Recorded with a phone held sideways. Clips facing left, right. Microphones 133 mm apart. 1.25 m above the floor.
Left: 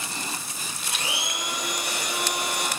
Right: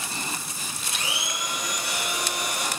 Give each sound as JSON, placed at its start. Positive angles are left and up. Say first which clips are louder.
{"t": 0.9, "sound": "a blender", "louder": "left 1 dB", "side_deg": 55, "distance_m": 4.5}